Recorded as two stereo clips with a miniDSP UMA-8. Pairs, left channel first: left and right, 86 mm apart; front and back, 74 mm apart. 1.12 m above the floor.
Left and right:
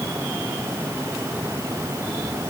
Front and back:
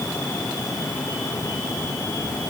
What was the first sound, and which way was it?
Only background noise.